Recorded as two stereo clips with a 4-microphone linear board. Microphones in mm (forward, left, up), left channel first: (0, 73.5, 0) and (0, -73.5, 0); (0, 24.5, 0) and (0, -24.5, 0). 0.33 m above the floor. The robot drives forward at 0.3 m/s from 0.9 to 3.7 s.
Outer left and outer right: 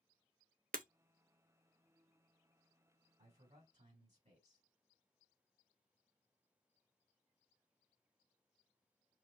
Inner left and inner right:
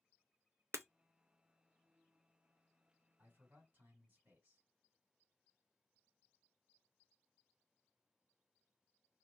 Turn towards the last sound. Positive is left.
turn(degrees=-50)  # may be behind; listen again after turning